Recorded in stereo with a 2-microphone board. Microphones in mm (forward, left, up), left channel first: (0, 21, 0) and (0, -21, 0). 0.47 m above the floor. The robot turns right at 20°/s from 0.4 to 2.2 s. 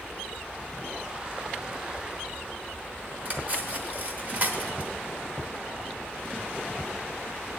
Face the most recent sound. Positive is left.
turn(degrees=-40)  # may be behind; listen again after turning